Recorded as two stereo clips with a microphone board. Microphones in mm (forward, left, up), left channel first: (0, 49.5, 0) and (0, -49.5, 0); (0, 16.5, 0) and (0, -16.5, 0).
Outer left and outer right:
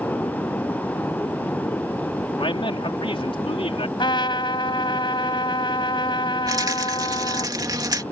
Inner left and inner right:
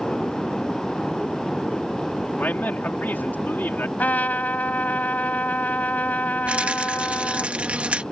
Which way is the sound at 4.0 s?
55° left (ahead or behind).